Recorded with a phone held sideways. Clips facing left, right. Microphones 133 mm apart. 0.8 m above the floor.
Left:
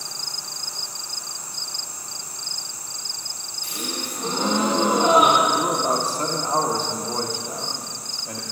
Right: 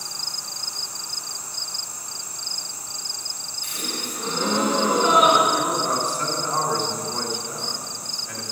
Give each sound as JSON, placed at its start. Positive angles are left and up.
{"t": 3.6, "sound": "a gasp", "side_deg": 40, "distance_m": 2.5}
{"t": 5.5, "sound": "a man speaking", "side_deg": 35, "distance_m": 1.4}